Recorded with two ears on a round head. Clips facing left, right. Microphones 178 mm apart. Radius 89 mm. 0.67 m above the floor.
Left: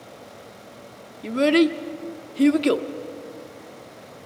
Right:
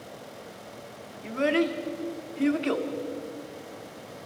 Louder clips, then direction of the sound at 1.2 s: Left 7 dB; 45° left (ahead or behind).